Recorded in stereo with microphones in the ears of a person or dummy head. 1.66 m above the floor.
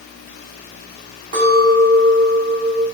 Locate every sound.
1.3 s a clink: 35° right (ahead or behind), 1.7 m